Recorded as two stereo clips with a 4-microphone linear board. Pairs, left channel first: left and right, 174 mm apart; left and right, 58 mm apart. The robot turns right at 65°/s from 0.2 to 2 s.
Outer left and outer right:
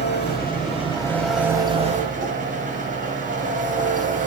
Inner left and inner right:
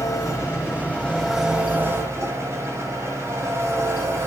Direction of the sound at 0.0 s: 110° left.